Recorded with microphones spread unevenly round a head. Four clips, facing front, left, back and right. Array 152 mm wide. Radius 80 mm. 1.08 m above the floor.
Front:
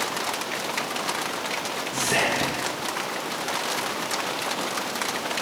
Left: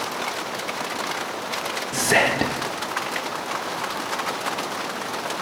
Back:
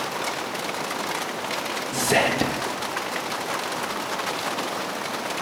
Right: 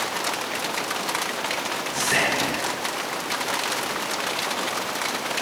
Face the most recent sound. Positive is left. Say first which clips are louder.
# left 5 dB, back 4 dB
turn(degrees=150)